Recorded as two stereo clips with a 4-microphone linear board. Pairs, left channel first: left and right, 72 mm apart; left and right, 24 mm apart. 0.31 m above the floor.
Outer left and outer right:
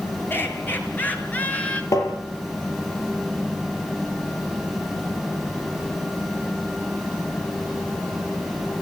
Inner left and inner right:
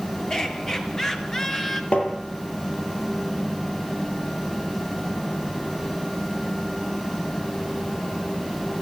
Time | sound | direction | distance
0.3 | laughter | 30° left (ahead or behind) | 6.5 m
1.9 | tapping | 50° left (ahead or behind) | 6.5 m